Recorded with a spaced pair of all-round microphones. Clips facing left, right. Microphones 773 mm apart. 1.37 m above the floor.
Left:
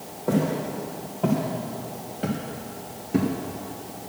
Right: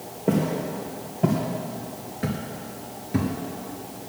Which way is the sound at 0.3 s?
55° right (ahead or behind).